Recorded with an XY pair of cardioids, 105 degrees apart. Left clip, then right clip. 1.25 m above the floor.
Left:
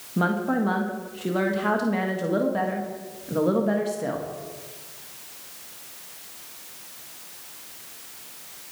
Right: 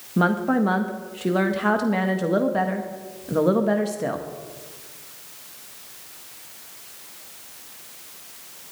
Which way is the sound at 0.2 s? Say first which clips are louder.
Right 3 dB; 25° right.